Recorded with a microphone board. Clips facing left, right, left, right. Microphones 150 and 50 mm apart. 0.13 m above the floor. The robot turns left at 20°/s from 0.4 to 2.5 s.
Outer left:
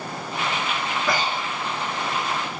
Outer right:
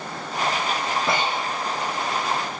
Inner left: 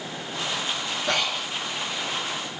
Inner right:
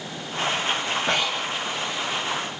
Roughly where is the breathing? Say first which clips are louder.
Outer left 1 dB, inner left 1 dB; right.